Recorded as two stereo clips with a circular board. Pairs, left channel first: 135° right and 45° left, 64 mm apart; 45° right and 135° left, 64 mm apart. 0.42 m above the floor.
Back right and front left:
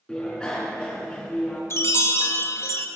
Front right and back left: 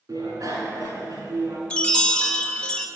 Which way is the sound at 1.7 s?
115° right.